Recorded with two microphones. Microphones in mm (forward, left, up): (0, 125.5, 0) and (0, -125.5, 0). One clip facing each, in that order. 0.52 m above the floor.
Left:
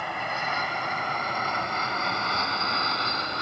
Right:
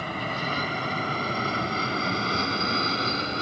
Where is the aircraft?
40° right (ahead or behind); by 3.4 s 35° right (ahead or behind).